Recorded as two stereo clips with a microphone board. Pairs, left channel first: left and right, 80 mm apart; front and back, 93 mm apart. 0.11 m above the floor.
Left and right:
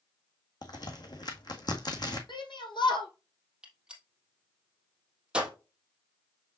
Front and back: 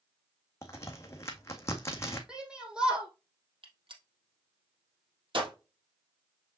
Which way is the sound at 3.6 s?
165° right.